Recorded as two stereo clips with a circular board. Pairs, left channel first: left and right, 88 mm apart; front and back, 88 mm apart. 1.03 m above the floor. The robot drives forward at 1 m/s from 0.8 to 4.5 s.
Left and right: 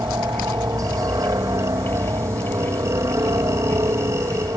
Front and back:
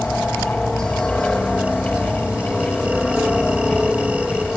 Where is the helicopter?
80° right; by 4.6 s 90° right.